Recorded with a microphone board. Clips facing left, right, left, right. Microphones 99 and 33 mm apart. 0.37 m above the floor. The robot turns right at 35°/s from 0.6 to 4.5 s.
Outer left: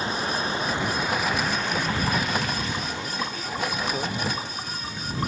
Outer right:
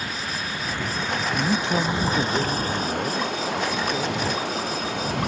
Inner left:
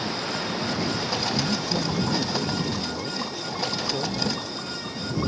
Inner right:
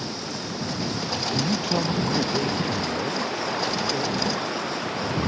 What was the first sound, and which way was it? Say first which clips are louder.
Running water: outer left 4 dB, inner left 3 dB; 155° left.